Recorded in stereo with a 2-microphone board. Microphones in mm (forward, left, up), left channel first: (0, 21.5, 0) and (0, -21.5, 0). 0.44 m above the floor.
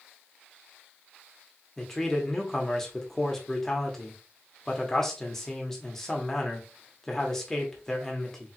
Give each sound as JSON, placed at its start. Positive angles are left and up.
{"t": 1.8, "sound": "a man speaking", "side_deg": 10, "distance_m": 1.4}